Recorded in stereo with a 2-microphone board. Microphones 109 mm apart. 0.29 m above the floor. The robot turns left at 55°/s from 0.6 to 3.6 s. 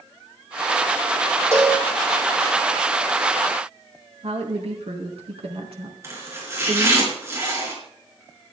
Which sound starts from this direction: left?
A cowbell, at 1.5 s.